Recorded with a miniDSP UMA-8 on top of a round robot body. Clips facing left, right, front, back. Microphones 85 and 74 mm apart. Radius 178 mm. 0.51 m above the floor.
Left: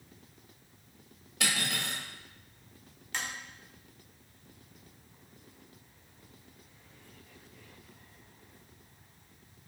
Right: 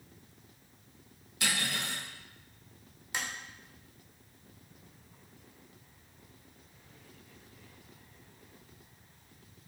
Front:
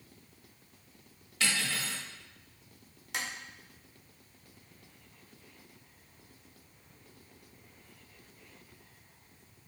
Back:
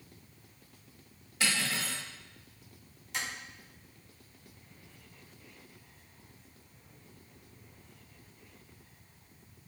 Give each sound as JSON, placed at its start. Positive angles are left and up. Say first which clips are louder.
{"t": 1.4, "sound": "cutlery clinking", "louder": "left 1 dB, back 1 dB", "azimuth_deg": 100, "distance_m": 1.1}
{"t": 3.1, "sound": "tapping", "louder": "even, even", "azimuth_deg": -15, "distance_m": 1.0}